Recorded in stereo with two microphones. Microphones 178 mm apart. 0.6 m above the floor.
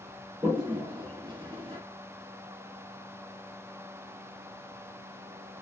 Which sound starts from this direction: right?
A toilet flushing, at 0.4 s.